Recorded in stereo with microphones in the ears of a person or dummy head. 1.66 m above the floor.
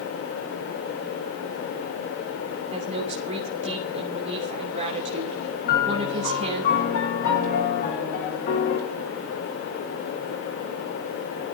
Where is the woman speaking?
35° right (ahead or behind), 3 m.